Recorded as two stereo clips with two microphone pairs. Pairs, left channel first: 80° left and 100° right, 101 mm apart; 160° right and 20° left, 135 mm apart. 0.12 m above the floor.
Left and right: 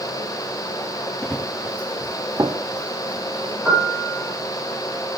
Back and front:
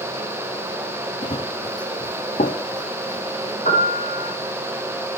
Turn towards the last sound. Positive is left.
turn(degrees=180)